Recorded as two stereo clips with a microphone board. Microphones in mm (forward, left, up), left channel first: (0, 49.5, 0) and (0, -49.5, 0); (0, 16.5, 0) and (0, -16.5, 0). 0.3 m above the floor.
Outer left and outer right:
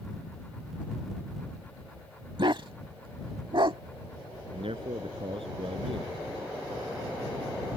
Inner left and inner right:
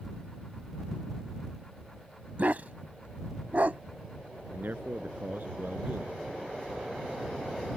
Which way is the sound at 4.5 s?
70° right (ahead or behind).